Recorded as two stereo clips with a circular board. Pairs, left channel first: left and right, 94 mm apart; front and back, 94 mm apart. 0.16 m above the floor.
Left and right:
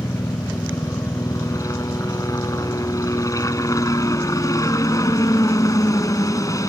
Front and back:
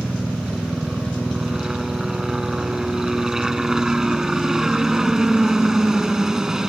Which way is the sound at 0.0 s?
100° left.